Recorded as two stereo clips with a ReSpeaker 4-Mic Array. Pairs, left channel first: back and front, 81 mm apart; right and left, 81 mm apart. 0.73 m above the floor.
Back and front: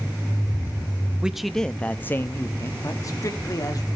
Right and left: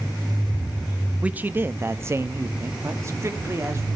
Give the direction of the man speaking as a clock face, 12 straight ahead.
10 o'clock.